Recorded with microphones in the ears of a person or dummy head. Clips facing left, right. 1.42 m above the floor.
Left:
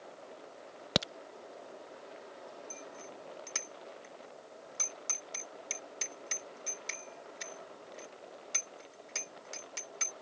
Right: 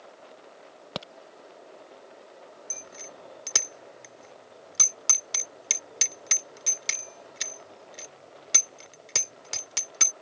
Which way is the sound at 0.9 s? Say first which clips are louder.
Left 4 dB; 25° left (ahead or behind).